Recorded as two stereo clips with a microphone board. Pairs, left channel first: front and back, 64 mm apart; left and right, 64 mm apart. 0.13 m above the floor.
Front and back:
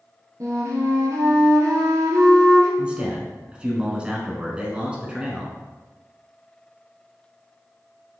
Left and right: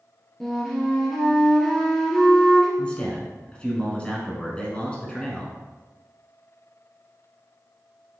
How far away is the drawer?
I don't hear a drawer.